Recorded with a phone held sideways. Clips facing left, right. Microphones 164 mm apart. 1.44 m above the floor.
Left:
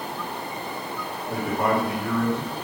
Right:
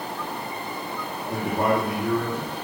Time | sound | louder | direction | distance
1.3 | a man speaking | right 1 dB | 20° right (ahead or behind) | 2.5 m